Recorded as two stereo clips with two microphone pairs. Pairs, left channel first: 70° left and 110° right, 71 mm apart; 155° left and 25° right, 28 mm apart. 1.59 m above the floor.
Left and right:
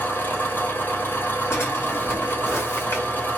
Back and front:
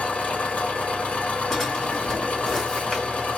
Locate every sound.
0.0 s an engine running: 130° left, 1.0 m
1.5 s a drawer: 80° left, 1.5 m